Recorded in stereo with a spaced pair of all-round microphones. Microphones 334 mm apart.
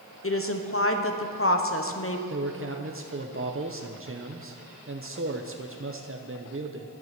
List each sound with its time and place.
0.2 s a woman speaking: 40° left (ahead or behind), 1.0 m
2.3 s a man speaking: 40° right (ahead or behind), 0.7 m